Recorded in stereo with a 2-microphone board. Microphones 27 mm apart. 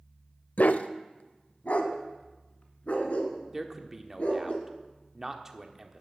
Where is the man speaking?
15° right (ahead or behind), 1.2 m.